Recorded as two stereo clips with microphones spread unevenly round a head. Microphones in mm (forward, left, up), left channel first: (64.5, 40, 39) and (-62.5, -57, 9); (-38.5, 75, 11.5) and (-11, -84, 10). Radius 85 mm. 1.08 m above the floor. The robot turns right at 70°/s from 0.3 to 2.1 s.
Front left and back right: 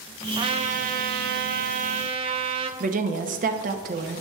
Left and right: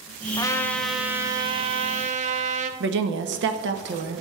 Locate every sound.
0.4 s a trumpet: 150° left, 0.6 m; by 2.7 s 85° right, 0.6 m
2.8 s a woman speaking: 100° right, 0.9 m